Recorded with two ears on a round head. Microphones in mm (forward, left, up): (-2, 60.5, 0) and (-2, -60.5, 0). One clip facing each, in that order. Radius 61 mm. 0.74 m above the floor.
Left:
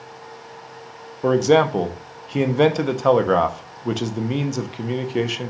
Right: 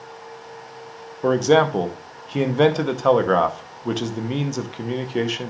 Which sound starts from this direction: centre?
A man speaking, at 1.2 s.